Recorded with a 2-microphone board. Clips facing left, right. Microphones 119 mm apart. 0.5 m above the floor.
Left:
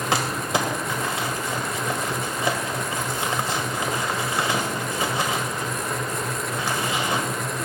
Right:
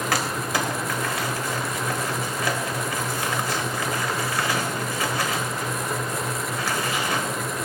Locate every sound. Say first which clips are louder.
0.1 s crumpling: left 3 dB; 25° left (ahead or behind), 1.9 m